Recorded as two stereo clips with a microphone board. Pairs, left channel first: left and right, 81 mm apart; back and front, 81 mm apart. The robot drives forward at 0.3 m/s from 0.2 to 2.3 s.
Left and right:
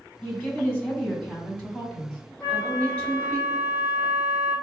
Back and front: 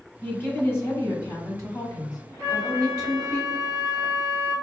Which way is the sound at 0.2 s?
145° left.